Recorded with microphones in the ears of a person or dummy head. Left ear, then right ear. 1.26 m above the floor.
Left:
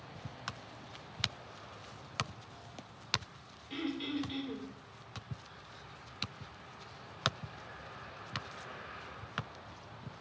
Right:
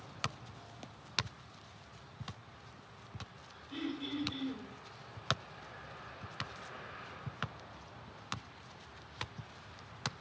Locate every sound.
3.7 s throat clearing: 60° left (ahead or behind), 2.5 m